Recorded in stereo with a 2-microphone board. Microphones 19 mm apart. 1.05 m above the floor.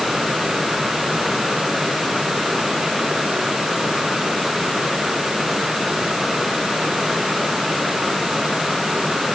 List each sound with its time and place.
Only background noise.